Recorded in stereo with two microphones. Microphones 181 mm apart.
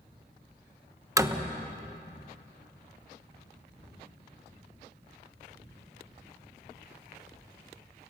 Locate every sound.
1.2 s a door slam: 15° right (ahead or behind), 1.0 m